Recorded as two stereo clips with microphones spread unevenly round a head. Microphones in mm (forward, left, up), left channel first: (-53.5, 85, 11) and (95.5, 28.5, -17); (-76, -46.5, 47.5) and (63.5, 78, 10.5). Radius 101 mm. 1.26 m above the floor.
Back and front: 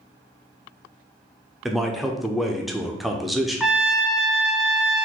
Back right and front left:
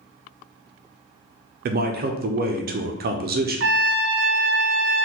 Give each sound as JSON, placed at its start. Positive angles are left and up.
{"t": 1.6, "sound": "a man speaking", "azimuth_deg": 65, "distance_m": 0.6}
{"t": 3.6, "sound": "a trumpet", "azimuth_deg": 70, "distance_m": 0.6}